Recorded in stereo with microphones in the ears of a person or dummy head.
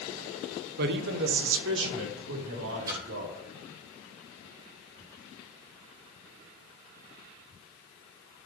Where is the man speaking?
55° right (ahead or behind), 1.0 m; by 3.4 s 85° right, 3.5 m.